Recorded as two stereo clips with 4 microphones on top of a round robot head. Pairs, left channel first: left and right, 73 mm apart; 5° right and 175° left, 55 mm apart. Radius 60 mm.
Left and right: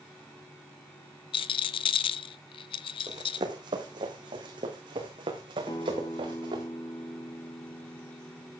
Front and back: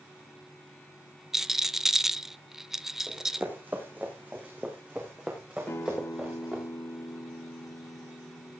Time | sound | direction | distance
1.3 | a rattle | 90° left | 0.8 m
3.1 | running footsteps | 120° right | 2.5 m
5.7 | a guitar | 45° left | 0.7 m